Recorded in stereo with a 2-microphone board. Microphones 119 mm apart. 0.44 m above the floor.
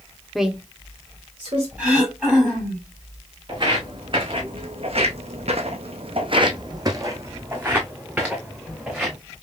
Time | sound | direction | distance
0.3 | a woman speaking | centre (ahead or behind) | 0.7 m
1.8 | throat clearing | 10° right (ahead or behind) | 3.5 m
3.5 | footsteps | 40° right (ahead or behind) | 1.6 m